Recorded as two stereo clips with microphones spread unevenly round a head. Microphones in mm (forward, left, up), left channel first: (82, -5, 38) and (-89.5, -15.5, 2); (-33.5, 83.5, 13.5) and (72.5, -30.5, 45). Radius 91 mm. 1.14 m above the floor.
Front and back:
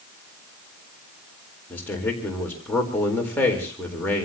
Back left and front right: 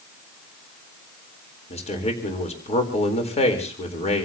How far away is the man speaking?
About 4 m.